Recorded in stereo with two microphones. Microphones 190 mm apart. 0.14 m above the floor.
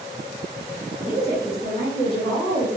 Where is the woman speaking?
30° left (ahead or behind), 1.9 m; by 2.7 s 20° left (ahead or behind), 1.8 m.